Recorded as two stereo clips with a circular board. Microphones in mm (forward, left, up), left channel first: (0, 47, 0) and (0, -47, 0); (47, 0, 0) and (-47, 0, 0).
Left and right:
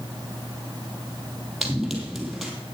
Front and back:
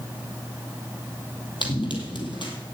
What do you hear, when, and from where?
1.6 s running footsteps: 5° right, 2.5 m